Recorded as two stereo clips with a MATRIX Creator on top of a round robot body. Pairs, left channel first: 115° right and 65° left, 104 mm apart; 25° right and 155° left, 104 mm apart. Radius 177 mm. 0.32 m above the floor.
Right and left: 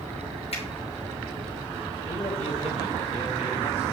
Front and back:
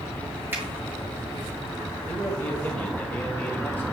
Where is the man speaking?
100° right, 2.5 m.